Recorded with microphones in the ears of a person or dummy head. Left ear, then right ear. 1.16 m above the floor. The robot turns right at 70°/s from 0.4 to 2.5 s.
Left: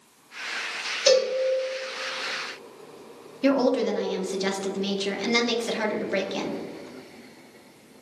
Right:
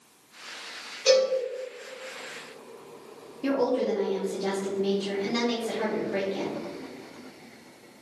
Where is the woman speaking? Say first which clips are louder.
Left 3 dB; 60° left (ahead or behind), 1.1 m.